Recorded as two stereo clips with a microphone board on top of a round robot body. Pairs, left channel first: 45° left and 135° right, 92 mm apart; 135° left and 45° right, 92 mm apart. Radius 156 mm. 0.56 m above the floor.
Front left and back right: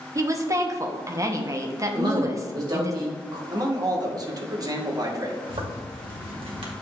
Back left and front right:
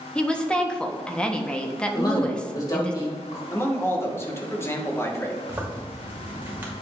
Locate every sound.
0.1 s a woman speaking: 155° right, 1.4 m
1.9 s a man speaking: 175° right, 3 m
3.5 s a man speaking: 170° right, 1.8 m
5.5 s a zipper: 115° right, 2 m